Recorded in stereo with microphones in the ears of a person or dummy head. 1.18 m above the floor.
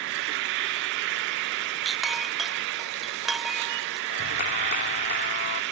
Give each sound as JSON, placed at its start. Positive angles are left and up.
{"t": 0.0, "sound": "an insect", "side_deg": -60}
{"t": 1.9, "sound": "a clink", "side_deg": -5}
{"t": 4.1, "sound": "a clap", "side_deg": 45}